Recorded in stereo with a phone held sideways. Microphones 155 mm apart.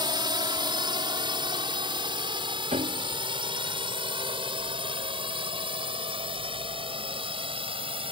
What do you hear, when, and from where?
0.0 s a drone: 30° right (ahead or behind); by 8.1 s 35° right (ahead or behind)
2.7 s a piano: 50° right (ahead or behind)